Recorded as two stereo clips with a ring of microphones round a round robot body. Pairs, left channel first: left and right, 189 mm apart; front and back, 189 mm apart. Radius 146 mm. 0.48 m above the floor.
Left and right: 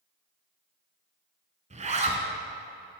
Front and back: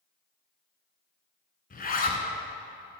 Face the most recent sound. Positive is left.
turn(degrees=-40)